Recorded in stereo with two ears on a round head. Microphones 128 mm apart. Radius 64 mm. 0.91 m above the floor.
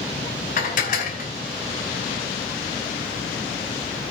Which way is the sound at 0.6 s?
55° left (ahead or behind).